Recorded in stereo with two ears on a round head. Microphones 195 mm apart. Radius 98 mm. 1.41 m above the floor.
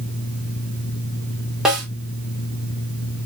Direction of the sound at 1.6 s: 5° right (ahead or behind).